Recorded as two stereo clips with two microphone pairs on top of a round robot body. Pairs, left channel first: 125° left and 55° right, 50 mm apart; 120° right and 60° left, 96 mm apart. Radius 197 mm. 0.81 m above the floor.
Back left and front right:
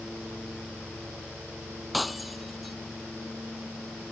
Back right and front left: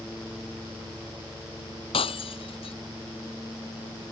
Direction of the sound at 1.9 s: 150° right.